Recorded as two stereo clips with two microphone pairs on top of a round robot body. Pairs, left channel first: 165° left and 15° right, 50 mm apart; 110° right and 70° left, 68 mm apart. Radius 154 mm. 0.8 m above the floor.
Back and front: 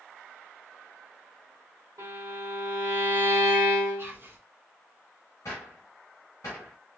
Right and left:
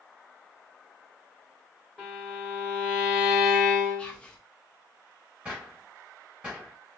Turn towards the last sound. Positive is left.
turn(degrees=140)